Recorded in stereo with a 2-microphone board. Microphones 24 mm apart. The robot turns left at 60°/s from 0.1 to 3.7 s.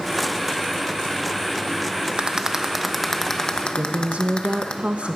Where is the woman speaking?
60° right (ahead or behind), 0.9 m.